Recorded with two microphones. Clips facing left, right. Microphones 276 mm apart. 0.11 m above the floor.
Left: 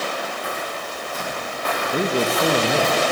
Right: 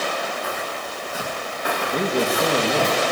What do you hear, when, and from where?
0.4 s footsteps: centre (ahead or behind), 7 m; by 2.9 s 20° right (ahead or behind), 10 m
1.9 s a man speaking: 5° left (ahead or behind), 2 m